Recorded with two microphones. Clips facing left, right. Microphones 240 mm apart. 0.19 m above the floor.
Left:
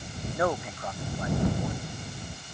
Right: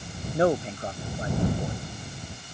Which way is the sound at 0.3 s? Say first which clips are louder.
Right 6 dB; 30° right (ahead or behind).